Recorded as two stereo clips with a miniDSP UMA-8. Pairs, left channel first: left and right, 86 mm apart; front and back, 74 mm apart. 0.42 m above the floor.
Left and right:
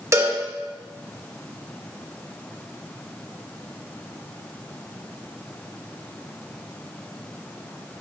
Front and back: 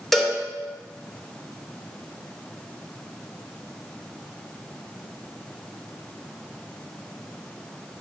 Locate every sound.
0.1 s a cowbell: 85° right, 0.8 m